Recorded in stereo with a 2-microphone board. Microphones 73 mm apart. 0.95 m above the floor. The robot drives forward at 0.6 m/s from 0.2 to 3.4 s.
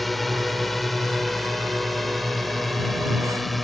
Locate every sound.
0.0 s a drone: centre (ahead or behind)